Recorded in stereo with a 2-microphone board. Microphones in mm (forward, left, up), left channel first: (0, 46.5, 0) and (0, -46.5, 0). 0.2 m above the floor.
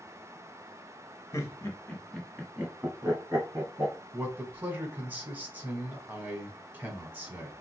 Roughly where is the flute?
I don't hear a flute.